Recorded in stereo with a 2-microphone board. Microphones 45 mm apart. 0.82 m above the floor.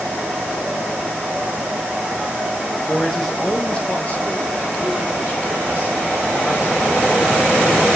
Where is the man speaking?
5° right (ahead or behind), 0.6 m; by 7.9 s 55° left (ahead or behind), 3 m.